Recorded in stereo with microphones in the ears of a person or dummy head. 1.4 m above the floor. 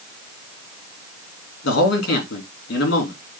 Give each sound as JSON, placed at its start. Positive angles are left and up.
{"t": 1.6, "sound": "a man speaking", "side_deg": 70, "distance_m": 3.0}